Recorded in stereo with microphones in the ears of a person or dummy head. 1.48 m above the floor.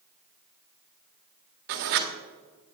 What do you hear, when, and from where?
1.7 s writing: 50° right (ahead or behind), 1.6 m